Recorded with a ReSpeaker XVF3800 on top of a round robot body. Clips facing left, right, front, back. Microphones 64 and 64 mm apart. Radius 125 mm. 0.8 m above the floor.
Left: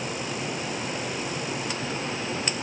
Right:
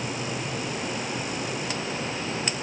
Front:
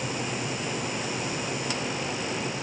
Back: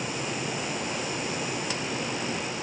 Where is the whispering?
No whispering in this recording.